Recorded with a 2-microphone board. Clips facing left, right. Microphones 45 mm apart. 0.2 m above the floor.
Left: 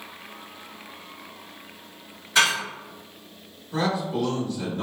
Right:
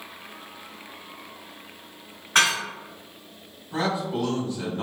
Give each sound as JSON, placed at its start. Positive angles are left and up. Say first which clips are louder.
{"t": 2.4, "sound": "dishes clattering", "louder": "even", "side_deg": -55, "distance_m": 1.5}
{"t": 3.7, "sound": "a man speaking", "louder": "left 1 dB", "side_deg": -25, "distance_m": 1.2}